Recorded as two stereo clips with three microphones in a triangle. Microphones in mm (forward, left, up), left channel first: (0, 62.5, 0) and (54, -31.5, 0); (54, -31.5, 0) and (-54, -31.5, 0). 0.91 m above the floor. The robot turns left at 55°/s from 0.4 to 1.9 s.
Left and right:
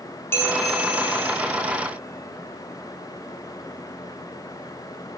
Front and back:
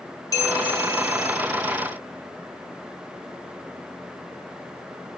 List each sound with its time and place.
0.3 s a bell: 55° left, 0.9 m; by 1.4 s straight ahead, 0.9 m